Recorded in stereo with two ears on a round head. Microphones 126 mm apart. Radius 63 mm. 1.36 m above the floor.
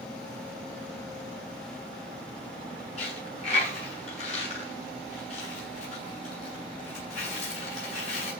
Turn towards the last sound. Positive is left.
turn(degrees=50)  # may be behind; listen again after turning